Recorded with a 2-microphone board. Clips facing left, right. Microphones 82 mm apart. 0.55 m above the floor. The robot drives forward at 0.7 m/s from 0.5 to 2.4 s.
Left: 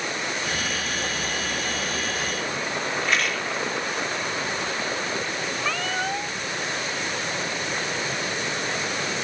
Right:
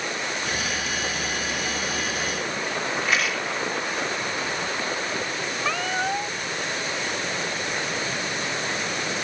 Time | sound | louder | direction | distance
3.0 | a rattle | even | centre (ahead or behind) | ?
5.6 | a cat meowing | right 2 dB | 10° right (ahead or behind) | ?